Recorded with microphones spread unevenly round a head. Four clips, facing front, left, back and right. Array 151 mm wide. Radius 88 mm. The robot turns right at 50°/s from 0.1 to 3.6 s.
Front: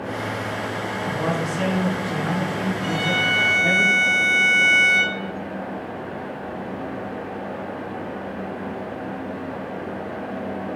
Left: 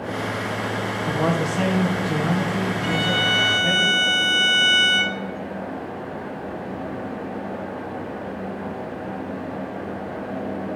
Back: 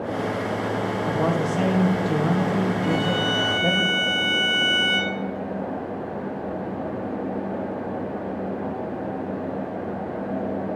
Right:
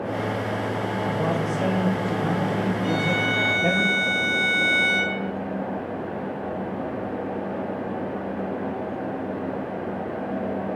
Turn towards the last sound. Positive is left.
turn(degrees=140)